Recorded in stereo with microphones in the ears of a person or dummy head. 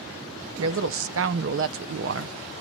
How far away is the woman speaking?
About 0.7 m.